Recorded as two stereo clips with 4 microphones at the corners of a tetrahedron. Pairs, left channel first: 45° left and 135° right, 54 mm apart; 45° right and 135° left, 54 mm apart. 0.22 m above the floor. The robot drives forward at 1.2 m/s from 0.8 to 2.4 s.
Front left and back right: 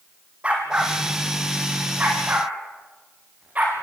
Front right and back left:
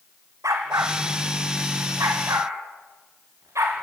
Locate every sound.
0.4 s a dog barking: 160° left, 4.5 m; by 3.8 s 165° left, 6 m